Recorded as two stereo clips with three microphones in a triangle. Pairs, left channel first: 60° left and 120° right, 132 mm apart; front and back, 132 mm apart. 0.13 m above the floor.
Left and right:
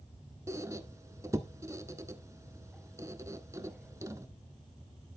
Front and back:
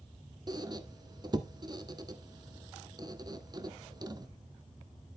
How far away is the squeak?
About 0.8 m.